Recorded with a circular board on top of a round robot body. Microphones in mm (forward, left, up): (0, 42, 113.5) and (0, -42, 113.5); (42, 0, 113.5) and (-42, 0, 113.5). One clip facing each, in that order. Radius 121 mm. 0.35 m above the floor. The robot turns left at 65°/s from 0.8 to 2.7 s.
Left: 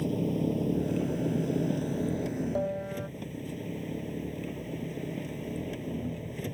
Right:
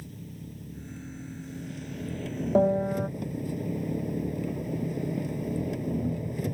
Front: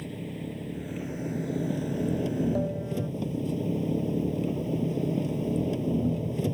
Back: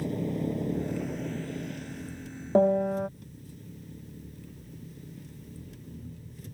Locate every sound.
0.0 s an engine running: 110° left; by 6.5 s 10° right
2.5 s a piano: 135° right; by 3.1 s 145° right